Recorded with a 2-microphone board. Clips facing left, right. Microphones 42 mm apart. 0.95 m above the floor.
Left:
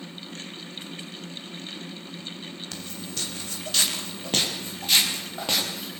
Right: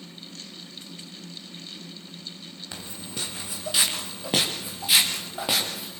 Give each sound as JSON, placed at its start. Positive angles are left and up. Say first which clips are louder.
{"t": 2.7, "sound": "footsteps", "louder": "left 1 dB", "side_deg": -15, "distance_m": 3.0}